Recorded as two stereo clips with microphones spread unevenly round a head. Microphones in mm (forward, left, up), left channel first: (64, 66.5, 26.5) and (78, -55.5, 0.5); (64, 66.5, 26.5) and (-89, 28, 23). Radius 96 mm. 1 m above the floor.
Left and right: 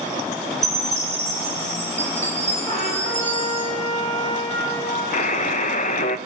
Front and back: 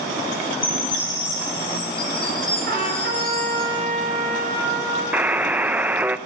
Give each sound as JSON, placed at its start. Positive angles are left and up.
{"t": 0.6, "sound": "a chime", "azimuth_deg": -55, "distance_m": 6.0}
{"t": 2.7, "sound": "a trumpet", "azimuth_deg": 175, "distance_m": 6.0}
{"t": 5.1, "sound": "a buzzer", "azimuth_deg": 115, "distance_m": 0.9}